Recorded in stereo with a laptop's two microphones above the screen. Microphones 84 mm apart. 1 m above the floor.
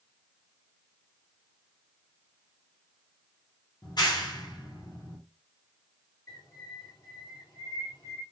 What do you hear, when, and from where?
3.8 s a clap: 55° left (ahead or behind), 1.7 m
6.3 s a bird: 50° left (ahead or behind), 2.5 m